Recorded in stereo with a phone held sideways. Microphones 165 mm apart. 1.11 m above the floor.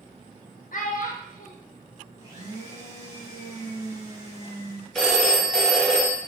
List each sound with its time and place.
0.7 s a child speaking: 60° left (ahead or behind), 0.7 m
2.2 s a blender: 25° right (ahead or behind), 1.0 m
5.0 s a phone ringing: 5° left (ahead or behind), 0.7 m